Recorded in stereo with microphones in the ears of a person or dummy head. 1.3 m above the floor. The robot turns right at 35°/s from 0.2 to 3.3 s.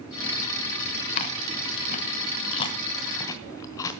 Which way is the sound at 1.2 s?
35° left (ahead or behind).